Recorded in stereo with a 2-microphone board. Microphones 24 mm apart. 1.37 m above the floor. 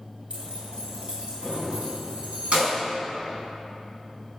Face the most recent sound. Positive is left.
turn(degrees=-65)  # may be behind; listen again after turning